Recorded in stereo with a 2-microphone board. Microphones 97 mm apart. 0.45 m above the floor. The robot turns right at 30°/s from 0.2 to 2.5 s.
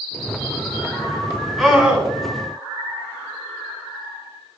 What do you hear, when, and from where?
1.6 s a scream: centre (ahead or behind), 3.5 m; by 2.1 s 15° right (ahead or behind), 3.5 m